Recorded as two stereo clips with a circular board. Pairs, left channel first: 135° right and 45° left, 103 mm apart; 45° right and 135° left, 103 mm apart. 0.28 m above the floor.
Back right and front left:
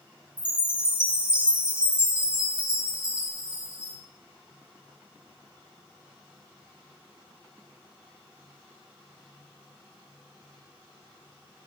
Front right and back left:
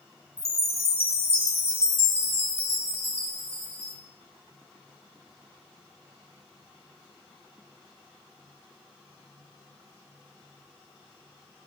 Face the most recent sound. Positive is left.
turn(degrees=-35)